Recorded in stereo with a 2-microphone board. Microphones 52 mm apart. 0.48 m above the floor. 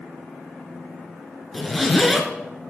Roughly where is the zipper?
Centre.